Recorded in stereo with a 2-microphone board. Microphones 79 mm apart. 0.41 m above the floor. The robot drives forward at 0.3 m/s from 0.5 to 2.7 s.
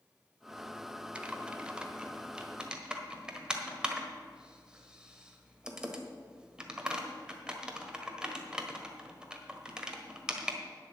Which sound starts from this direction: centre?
Typing on a keyboard, at 1.1 s.